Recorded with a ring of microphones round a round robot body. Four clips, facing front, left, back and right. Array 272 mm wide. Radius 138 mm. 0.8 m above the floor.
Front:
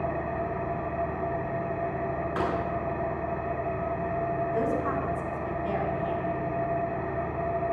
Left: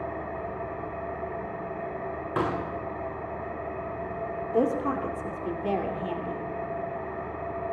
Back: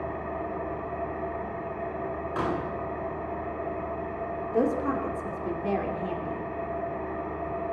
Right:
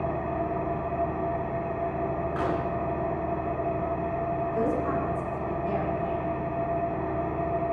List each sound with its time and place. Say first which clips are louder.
0.0 s an engine running: right 4 dB, front 3 dB; 55° right, 3.5 m
2.4 s a pop: left 2 dB, back 1 dB; 80° left, 9.5 m
4.5 s a woman speaking: left 4 dB, back 6 dB; 125° left, 3 m